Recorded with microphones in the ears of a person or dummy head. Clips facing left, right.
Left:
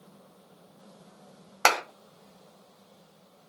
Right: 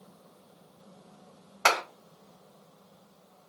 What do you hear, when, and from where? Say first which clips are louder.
1.6 s a clap: left 2 dB; 70° left (ahead or behind), 1.3 m